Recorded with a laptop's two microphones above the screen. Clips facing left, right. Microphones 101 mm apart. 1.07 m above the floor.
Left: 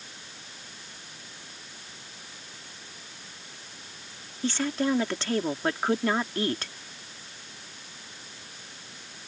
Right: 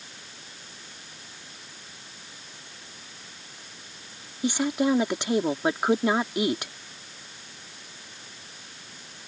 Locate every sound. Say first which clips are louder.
4.4 s a woman speaking: right 3 dB; 15° right (ahead or behind)